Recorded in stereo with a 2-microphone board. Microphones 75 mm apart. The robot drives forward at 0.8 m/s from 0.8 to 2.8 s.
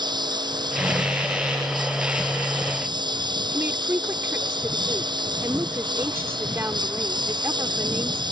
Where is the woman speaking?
35° right (ahead or behind).